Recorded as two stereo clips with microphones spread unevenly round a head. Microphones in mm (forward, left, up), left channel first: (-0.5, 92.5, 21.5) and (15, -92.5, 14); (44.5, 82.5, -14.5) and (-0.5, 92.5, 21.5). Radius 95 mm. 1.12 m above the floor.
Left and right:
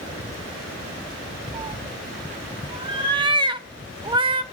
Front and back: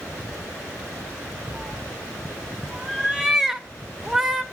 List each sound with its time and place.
1.5 s a cat meowing: 145° right, 0.8 m